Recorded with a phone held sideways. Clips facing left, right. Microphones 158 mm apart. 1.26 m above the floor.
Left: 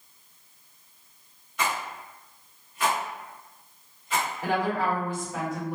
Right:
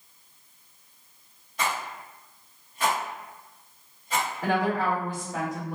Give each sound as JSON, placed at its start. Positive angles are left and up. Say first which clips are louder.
{"t": 1.6, "sound": "a rattle", "louder": "even", "side_deg": -35, "distance_m": 1.4}
{"t": 4.4, "sound": "a woman speaking", "louder": "right 1 dB", "side_deg": -40, "distance_m": 1.6}